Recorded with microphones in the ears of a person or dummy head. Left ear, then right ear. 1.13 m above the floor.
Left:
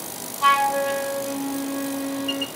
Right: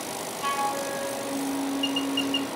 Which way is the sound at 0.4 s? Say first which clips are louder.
Left 10 dB; 25° left (ahead or behind).